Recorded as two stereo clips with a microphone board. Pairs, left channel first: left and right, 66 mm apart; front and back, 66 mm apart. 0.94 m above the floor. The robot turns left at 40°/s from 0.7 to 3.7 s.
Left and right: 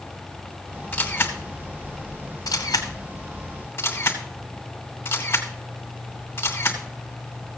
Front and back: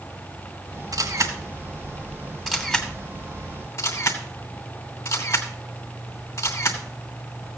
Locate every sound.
0.9 s a camera shutter: 150° left, 2 m; by 7.6 s 40° left, 2 m